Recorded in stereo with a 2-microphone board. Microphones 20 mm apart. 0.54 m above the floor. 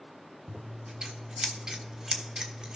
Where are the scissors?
45° right (ahead or behind), 1.1 m.